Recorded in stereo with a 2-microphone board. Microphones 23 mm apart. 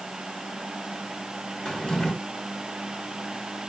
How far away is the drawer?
About 1.6 m.